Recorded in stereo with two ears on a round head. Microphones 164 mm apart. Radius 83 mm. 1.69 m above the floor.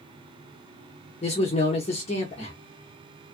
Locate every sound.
1.2 s a man speaking: 35° left (ahead or behind), 0.7 m